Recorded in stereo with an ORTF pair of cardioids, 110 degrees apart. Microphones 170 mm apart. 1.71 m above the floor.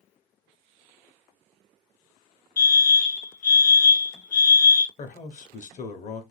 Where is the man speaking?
45° left, 1.0 m.